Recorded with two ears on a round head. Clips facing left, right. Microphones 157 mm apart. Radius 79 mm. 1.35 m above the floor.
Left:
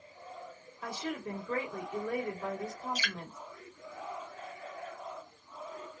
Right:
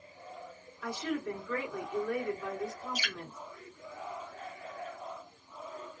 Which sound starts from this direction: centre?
Dripping, at 3.0 s.